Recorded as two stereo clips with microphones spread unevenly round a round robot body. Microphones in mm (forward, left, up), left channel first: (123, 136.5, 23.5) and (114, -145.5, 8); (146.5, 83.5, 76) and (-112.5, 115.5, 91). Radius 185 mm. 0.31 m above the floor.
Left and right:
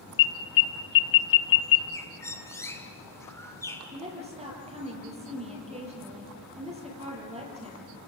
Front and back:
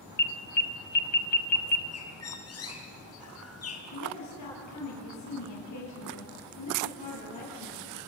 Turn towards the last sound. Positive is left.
turn(degrees=-25)